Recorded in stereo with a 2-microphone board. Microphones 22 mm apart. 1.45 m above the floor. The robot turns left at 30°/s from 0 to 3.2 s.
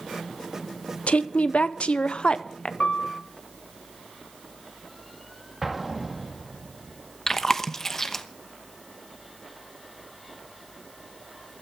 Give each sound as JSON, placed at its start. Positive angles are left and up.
{"t": 1.1, "sound": "a woman speaking", "azimuth_deg": 85, "distance_m": 0.8}
{"t": 2.8, "sound": "a piano", "side_deg": 65, "distance_m": 2.5}
{"t": 5.6, "sound": "an explosion", "side_deg": -5, "distance_m": 1.5}
{"t": 7.3, "sound": "chewing", "side_deg": 20, "distance_m": 0.9}